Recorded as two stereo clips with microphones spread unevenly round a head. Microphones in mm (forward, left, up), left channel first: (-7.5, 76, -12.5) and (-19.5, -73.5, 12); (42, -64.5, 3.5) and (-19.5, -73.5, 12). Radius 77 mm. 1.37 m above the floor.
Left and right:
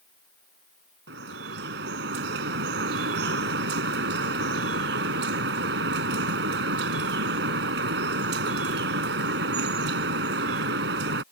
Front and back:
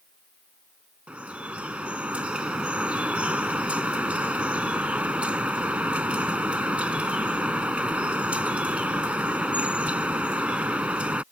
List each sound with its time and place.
1.1 s dripping: 105° right